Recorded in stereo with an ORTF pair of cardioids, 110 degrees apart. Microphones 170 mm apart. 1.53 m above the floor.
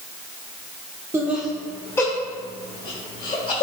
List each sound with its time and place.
1.1 s laughter: 15° right, 1.3 m; by 3.6 s 40° left, 3 m